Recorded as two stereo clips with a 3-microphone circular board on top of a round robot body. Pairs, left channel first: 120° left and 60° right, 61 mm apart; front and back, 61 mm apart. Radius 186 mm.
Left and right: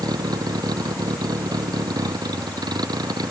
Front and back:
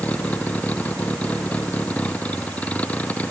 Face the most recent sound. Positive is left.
turn(degrees=-70)